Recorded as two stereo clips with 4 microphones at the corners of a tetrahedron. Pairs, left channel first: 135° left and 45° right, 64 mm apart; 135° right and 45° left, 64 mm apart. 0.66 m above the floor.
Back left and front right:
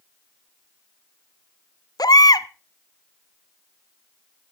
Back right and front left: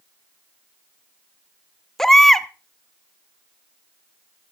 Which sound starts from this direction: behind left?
A baby crying, at 2.0 s.